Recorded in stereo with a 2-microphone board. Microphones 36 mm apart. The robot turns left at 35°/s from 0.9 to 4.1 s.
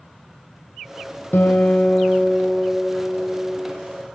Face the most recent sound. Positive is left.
turn(degrees=-15)